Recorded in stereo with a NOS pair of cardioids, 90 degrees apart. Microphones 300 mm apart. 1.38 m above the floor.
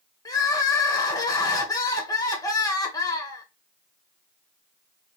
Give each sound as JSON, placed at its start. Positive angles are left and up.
{"t": 0.2, "sound": "crying", "azimuth_deg": 10, "distance_m": 1.0}